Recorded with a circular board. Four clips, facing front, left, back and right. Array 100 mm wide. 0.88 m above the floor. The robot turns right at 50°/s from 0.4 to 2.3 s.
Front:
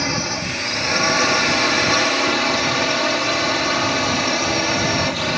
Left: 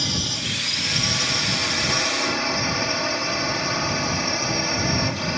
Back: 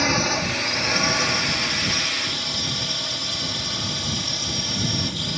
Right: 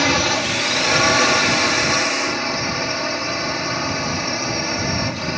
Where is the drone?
100° right; by 5.4 s 5° right.